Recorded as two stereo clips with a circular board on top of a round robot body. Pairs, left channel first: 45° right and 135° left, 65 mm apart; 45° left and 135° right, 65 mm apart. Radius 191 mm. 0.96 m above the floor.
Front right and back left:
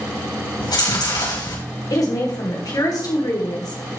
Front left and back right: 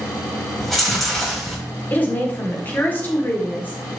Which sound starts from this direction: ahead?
A woman speaking, at 1.9 s.